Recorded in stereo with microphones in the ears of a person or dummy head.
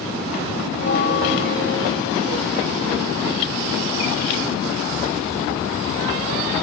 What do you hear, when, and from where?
0.7 s a bell: 60° left (ahead or behind), 3 m